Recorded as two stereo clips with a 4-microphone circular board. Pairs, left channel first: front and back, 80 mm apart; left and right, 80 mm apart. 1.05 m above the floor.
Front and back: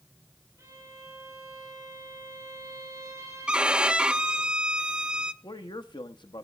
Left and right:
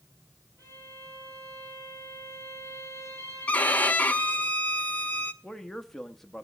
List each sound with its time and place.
0.6 s a violin: 125° right, 7.5 m
3.5 s a violin: 120° left, 0.6 m
5.4 s a man speaking: 5° left, 1.1 m